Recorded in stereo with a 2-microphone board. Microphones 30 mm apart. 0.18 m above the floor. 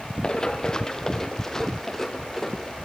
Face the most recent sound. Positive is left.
turn(degrees=15)  # may be behind; listen again after turning